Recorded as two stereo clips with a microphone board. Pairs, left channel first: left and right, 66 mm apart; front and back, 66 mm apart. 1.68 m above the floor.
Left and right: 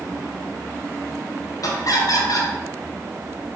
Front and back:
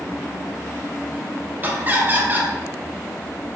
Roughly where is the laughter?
Behind left.